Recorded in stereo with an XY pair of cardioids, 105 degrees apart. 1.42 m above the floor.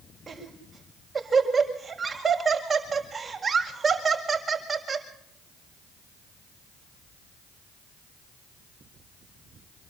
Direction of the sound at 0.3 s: 30° right.